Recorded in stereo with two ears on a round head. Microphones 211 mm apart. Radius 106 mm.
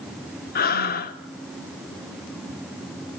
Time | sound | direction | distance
0.6 | breathing | 40° left (ahead or behind) | 0.7 m